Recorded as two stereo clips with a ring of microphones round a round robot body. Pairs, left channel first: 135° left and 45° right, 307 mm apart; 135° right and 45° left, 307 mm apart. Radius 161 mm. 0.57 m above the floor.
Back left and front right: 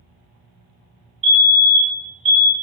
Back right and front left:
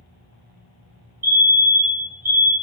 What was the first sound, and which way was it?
A fire alarm, 10° left.